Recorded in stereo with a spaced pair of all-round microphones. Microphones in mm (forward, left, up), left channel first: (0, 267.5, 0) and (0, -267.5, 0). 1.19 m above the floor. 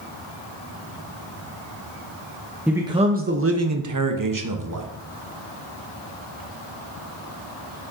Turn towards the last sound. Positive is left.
turn(degrees=-35)  # may be behind; listen again after turning